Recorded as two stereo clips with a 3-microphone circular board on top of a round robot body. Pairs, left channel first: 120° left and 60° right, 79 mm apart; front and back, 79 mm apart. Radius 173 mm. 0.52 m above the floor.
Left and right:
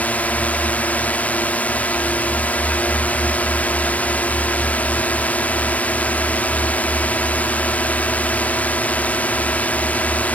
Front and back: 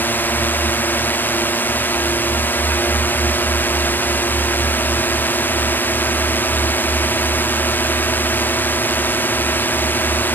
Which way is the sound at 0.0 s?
55° left.